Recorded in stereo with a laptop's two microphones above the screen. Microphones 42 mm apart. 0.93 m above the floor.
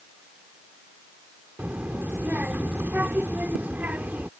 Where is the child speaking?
45° right (ahead or behind).